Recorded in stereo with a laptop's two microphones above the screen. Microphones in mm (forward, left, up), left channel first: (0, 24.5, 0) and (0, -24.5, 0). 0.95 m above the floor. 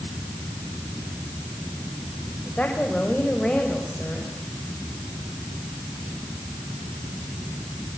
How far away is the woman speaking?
About 4 m.